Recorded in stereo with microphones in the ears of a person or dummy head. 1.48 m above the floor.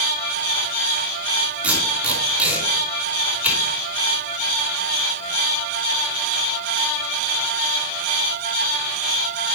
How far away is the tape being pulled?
About 5 m.